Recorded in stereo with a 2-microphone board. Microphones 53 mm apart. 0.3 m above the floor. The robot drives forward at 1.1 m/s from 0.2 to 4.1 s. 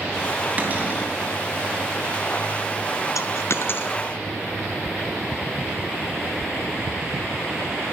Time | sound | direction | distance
0.6 | a cupboard door | 30° right (ahead or behind) | 3 m
3.1 | a dropped coin | 80° left | 0.9 m